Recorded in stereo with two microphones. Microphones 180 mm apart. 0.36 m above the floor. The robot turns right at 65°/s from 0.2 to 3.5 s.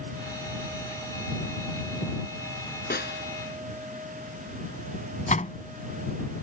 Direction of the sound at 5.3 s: 45° left (ahead or behind).